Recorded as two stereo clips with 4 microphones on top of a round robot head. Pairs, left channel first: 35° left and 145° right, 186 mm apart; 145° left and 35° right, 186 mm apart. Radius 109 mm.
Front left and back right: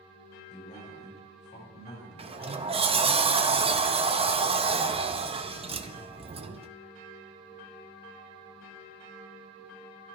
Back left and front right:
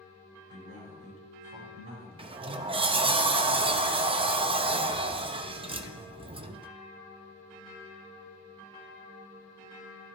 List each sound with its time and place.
0.5 s a man speaking: 20° right, 5.5 m
2.2 s a sliding door: 90° right, 0.6 m